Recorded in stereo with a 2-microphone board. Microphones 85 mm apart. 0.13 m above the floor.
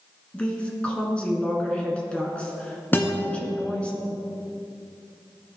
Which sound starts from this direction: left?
A guitar, at 2.9 s.